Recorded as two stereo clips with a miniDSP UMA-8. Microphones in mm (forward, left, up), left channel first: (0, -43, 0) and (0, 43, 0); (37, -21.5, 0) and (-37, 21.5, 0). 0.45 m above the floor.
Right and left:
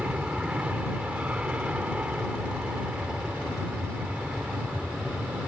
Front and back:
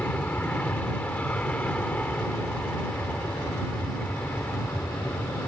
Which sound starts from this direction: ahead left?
An aircraft, at 0.0 s.